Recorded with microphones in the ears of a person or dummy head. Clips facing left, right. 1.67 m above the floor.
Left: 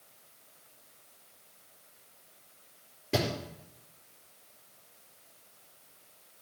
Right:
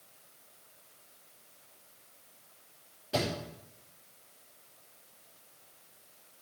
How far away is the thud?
About 4.5 m.